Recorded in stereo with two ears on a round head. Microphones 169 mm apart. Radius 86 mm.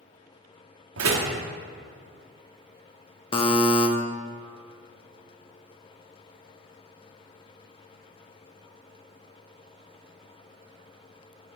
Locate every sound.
1.0 s a door slam: 85° right, 1.2 m
3.3 s a buzzer: 30° left (ahead or behind), 0.7 m